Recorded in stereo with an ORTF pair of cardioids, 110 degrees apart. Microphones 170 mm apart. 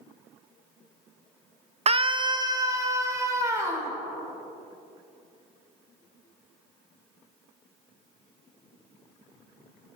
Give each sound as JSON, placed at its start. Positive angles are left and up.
{"t": 1.9, "sound": "a scream", "azimuth_deg": -40, "distance_m": 0.6}